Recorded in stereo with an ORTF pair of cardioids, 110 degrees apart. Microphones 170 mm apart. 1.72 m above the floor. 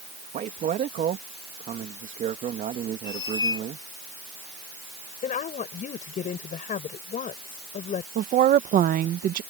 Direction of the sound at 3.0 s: 25° left.